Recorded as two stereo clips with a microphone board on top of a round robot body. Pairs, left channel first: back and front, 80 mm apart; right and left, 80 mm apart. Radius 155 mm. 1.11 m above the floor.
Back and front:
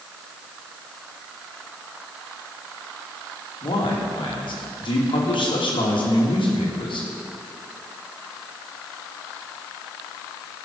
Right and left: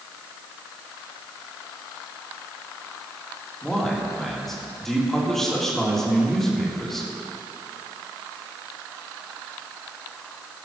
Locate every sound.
3.6 s a man speaking: 175° right, 2.5 m